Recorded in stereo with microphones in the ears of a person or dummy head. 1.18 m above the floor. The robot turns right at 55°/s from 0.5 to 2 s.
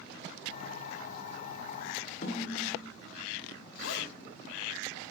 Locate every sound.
2.2 s a snare drum: 40° left (ahead or behind), 0.9 m
3.8 s a zipper: 70° left (ahead or behind), 1.5 m